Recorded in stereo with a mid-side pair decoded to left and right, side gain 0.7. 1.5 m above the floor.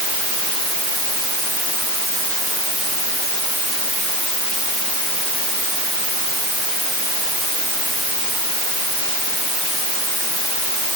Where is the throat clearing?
No throat clearing in this recording.